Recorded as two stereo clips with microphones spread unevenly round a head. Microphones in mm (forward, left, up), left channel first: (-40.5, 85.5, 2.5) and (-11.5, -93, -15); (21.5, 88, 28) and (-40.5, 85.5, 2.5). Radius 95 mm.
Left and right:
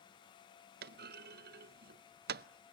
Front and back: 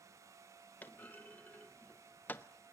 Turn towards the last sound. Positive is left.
turn(degrees=-50)